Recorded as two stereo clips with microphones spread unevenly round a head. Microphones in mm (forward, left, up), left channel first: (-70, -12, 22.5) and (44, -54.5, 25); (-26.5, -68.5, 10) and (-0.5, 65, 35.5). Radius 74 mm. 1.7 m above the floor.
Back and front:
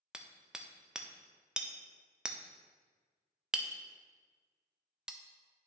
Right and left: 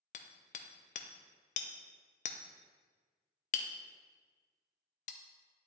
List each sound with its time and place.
0.1 s hammering: 100° right, 0.6 m